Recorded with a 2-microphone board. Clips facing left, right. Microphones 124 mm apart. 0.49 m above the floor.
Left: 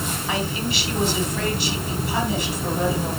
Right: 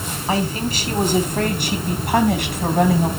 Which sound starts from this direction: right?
A man speaking, at 0.3 s.